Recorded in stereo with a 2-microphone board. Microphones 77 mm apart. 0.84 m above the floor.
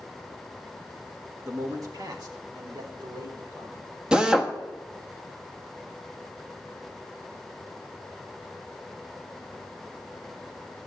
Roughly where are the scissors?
I don't hear scissors.